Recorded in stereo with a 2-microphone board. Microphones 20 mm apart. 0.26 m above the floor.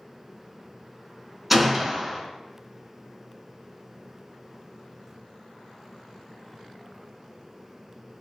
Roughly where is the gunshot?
Centre.